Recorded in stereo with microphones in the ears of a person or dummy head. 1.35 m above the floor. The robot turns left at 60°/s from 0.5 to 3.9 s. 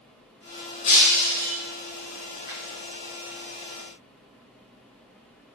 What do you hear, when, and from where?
0.8 s breaking glass: 60° left, 1.8 m; by 1.6 s 15° left, 1.8 m
2.5 s a finger snap: 50° left (ahead or behind), 1.2 m; by 2.6 s 55° left (ahead or behind), 1.2 m